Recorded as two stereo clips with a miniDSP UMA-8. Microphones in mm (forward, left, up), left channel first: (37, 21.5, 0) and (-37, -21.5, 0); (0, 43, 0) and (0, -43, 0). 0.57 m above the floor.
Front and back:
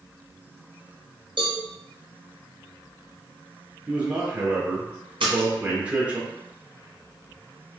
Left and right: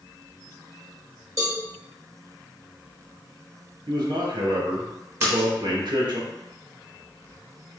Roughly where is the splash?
Behind right.